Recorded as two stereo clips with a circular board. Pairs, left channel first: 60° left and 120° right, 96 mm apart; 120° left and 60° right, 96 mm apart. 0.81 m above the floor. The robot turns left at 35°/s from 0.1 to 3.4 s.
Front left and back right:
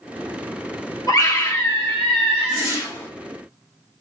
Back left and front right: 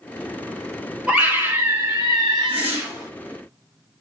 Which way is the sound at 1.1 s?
20° left.